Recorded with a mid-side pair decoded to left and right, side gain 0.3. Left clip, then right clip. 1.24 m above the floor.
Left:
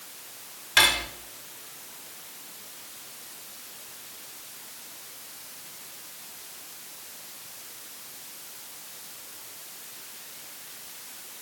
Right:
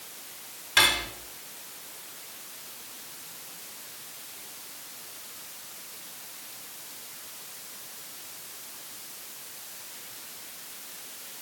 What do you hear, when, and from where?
0.8 s cutlery clinking: 30° left, 1.4 m